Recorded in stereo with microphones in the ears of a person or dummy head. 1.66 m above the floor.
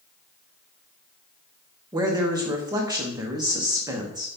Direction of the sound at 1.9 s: 20° right (ahead or behind).